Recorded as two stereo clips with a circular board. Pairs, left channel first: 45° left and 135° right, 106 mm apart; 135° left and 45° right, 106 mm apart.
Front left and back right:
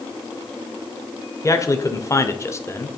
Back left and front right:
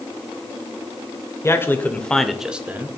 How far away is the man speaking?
About 1.0 m.